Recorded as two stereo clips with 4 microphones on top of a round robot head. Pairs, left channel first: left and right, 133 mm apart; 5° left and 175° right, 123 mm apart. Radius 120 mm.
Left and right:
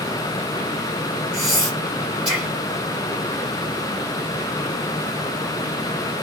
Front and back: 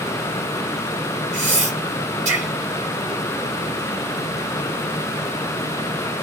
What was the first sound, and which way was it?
Breathing, 175° right.